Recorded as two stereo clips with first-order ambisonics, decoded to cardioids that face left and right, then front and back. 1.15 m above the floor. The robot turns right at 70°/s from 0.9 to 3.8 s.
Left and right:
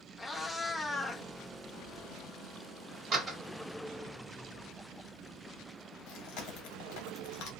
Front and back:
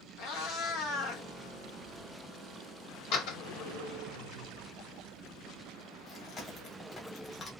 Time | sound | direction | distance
0.2 | a cat meowing | 10° left | 0.6 m
3.1 | a door slam | 35° right | 1.0 m
6.1 | chewing | 70° left | 0.8 m